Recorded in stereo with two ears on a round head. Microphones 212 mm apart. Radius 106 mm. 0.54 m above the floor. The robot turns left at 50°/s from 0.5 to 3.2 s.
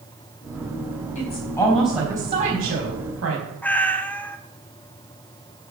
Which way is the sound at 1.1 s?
35° left.